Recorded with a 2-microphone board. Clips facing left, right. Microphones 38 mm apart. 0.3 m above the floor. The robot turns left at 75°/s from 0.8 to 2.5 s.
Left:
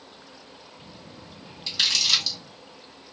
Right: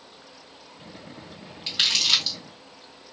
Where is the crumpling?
35° right (ahead or behind), 1.9 m; by 2.4 s 10° right (ahead or behind), 1.9 m.